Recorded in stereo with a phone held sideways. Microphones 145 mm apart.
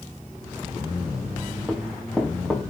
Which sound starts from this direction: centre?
Running footsteps, at 1.7 s.